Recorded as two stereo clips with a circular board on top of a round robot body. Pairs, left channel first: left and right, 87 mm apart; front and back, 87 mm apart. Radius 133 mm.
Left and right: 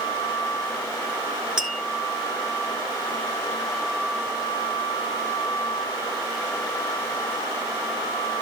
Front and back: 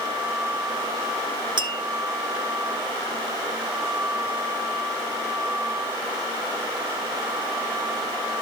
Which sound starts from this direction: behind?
Tapping, at 1.6 s.